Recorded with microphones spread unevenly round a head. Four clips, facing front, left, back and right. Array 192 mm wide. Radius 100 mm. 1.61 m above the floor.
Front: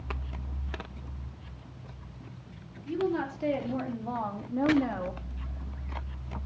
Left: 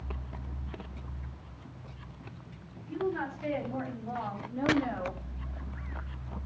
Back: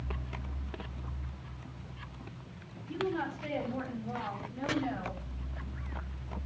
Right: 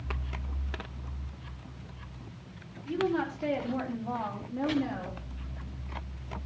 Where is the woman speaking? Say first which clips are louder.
Right 3 dB, front 4 dB; 45° right, 4 m; by 5.2 s 5° left, 2.5 m.